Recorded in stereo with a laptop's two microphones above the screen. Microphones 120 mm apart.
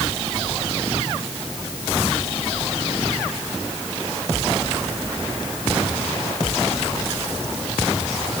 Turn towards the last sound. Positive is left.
No sound to turn to.